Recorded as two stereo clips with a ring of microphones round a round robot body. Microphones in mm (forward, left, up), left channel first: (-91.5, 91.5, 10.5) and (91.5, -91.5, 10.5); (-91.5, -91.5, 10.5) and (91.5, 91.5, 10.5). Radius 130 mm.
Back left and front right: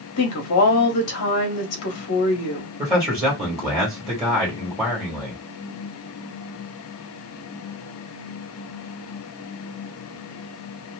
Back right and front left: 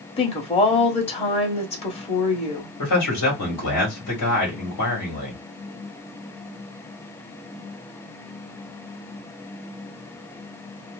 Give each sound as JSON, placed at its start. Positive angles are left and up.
{"t": 0.2, "sound": "a woman speaking", "azimuth_deg": 160, "distance_m": 1.3}
{"t": 2.8, "sound": "a man speaking", "azimuth_deg": -120, "distance_m": 1.8}